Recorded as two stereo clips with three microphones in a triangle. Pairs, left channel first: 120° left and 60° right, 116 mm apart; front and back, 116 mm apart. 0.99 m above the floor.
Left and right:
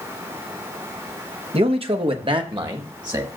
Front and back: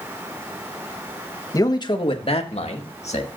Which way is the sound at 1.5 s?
55° right.